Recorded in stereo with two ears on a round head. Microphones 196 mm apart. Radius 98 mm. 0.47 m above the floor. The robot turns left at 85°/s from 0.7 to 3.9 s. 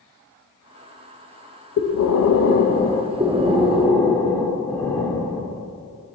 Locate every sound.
1.8 s breathing: 115° left, 0.6 m; by 4.0 s 65° right, 0.6 m
3.2 s breathing: 135° right, 0.7 m; by 5.6 s 165° left, 0.7 m